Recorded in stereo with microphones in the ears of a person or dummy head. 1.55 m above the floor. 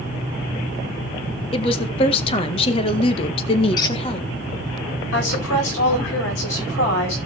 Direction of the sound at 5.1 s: 75° left (ahead or behind).